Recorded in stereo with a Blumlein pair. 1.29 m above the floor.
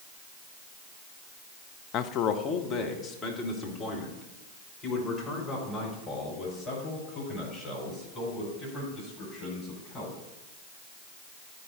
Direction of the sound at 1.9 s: 35° left.